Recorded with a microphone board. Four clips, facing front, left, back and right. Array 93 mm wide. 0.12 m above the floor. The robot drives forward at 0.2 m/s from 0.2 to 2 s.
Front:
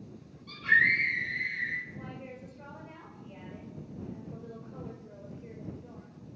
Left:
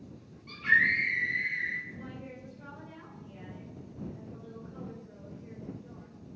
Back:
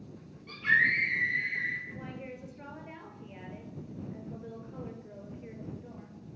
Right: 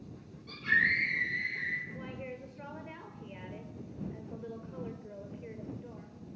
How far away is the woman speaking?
About 3 m.